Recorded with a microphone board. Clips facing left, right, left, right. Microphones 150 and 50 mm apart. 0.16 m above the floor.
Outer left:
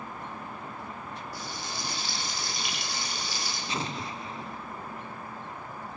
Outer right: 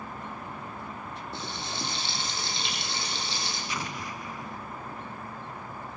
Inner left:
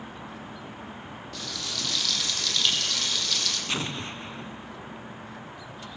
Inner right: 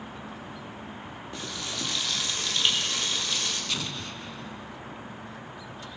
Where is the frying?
25° right (ahead or behind), 6 m.